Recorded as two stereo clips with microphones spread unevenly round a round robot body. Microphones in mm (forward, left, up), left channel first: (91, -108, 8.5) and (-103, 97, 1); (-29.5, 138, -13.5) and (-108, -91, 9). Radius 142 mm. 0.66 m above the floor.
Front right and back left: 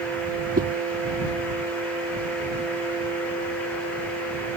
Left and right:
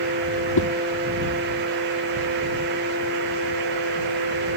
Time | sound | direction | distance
0.6 | a whoosh | 70° left | ?